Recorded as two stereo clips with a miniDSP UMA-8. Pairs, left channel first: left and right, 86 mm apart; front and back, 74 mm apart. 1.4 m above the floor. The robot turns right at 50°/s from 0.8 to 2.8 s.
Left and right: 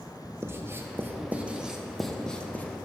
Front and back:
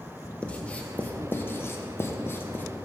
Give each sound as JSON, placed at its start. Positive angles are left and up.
{"t": 0.4, "sound": "writing", "azimuth_deg": -60, "distance_m": 0.6}